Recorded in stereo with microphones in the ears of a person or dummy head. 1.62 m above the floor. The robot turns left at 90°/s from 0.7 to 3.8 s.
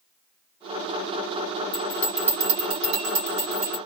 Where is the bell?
35° left (ahead or behind), 2 m; by 3.8 s 30° right (ahead or behind), 2 m.